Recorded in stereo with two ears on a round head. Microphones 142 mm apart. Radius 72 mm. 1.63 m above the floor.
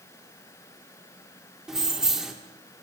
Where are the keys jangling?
5° right (ahead or behind), 1.3 m.